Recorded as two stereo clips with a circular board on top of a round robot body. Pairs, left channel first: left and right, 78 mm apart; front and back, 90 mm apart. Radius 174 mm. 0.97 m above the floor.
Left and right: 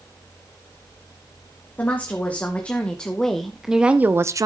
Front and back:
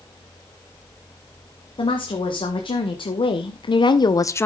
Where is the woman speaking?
20° left, 2 m; by 4.5 s 60° right, 0.7 m.